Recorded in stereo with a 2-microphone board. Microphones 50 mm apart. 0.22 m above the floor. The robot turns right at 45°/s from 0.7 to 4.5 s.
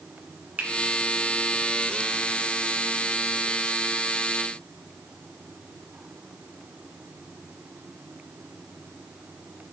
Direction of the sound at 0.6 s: 30° right (ahead or behind).